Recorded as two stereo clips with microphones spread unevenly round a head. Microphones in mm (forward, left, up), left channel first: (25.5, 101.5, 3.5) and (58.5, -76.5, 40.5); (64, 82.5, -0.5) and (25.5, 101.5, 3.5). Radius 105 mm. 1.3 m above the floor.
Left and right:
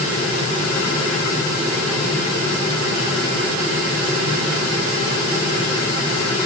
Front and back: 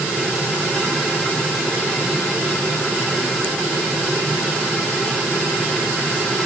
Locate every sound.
Only background noise.